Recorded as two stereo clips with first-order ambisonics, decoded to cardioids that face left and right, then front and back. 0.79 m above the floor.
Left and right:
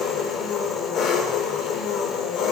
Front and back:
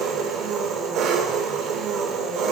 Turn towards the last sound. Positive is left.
turn(degrees=135)